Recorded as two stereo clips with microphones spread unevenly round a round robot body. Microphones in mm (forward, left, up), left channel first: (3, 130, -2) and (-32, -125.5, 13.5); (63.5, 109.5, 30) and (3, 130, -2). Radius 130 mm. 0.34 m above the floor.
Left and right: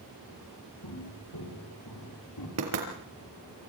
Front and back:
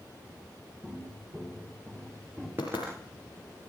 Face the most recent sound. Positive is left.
turn(degrees=-125)